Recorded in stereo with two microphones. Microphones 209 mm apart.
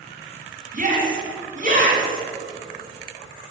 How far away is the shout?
About 2 m.